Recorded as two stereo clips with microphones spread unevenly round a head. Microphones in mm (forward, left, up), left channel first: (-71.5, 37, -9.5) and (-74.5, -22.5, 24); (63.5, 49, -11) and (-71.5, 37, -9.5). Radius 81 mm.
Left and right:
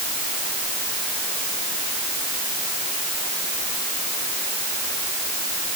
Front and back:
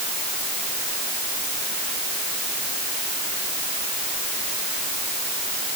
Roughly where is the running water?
No running water in this recording.